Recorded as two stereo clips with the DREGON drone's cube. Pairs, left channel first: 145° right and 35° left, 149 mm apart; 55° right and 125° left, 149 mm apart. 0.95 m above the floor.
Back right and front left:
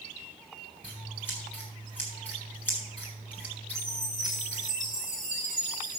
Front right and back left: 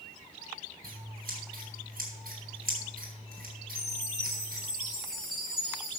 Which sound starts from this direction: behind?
A chime, at 3.8 s.